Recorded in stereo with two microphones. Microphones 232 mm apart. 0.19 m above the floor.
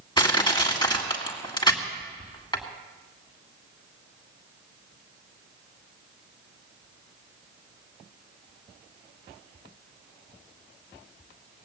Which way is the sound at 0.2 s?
20° left (ahead or behind).